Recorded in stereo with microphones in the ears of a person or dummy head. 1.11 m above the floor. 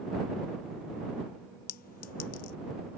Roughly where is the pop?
No pop in this recording.